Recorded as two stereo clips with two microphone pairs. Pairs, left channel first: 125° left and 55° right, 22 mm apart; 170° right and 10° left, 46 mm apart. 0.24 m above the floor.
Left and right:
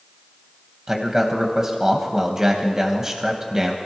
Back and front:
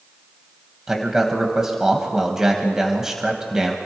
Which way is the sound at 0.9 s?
50° right.